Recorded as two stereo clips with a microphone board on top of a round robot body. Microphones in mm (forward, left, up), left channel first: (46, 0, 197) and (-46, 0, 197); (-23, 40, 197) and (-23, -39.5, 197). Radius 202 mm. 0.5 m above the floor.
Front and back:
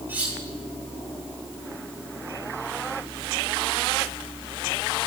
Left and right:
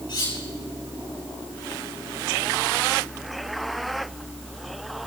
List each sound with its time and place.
0.1 s cutlery clinking: 110° left, 10 m